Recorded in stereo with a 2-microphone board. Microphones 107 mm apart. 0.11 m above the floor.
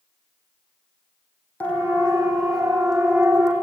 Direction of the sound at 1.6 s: 15° left (ahead or behind).